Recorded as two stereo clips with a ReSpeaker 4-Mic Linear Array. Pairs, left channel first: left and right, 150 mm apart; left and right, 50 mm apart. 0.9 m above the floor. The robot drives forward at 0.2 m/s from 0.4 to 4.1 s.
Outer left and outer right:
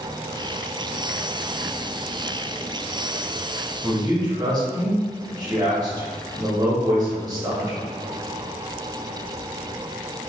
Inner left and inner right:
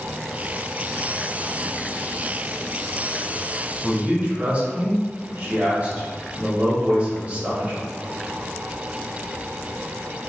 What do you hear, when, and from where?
3.8 s a man speaking: 30° right (ahead or behind), 1.1 m; by 7.9 s 25° right (ahead or behind), 1.1 m